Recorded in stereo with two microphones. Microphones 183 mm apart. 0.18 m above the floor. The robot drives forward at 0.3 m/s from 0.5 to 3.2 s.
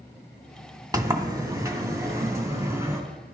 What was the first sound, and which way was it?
A sliding door, 20° right (ahead or behind).